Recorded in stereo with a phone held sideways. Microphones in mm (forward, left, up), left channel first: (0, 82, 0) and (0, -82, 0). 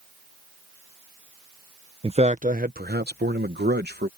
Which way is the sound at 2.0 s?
35° right (ahead or behind).